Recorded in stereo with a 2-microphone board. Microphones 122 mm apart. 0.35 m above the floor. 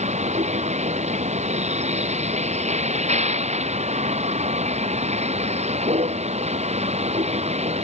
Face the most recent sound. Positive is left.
turn(degrees=-70)  # may be behind; listen again after turning